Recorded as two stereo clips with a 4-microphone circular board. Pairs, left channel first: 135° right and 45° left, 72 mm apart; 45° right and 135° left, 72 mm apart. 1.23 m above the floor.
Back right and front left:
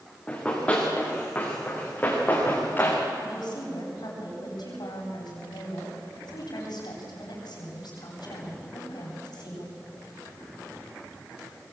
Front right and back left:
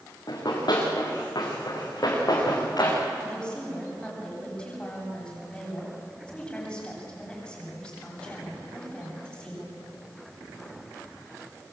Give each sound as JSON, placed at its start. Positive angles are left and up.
{"t": 0.3, "sound": "running footsteps", "azimuth_deg": -60, "distance_m": 7.5}
{"t": 3.2, "sound": "a woman speaking", "azimuth_deg": -120, "distance_m": 8.5}